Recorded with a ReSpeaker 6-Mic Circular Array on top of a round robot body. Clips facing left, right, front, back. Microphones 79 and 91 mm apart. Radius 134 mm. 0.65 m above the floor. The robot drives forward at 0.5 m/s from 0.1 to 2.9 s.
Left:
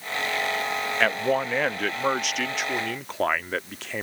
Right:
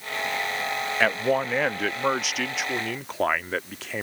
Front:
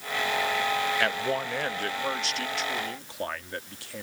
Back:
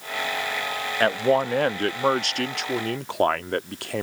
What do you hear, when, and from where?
1.0 s a man speaking: 175° right; by 4.0 s straight behind